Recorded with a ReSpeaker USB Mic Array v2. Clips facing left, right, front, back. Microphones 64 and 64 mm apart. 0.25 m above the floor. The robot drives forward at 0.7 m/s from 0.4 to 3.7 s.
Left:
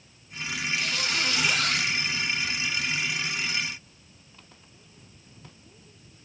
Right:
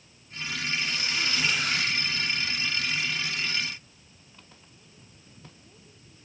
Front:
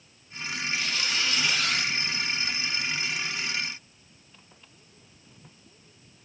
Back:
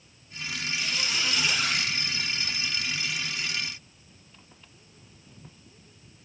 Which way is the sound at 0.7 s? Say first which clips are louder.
Left 2 dB, front 1 dB; 95° left.